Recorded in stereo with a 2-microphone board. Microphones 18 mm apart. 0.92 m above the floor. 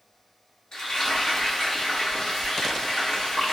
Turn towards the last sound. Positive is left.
turn(degrees=55)  # may be behind; listen again after turning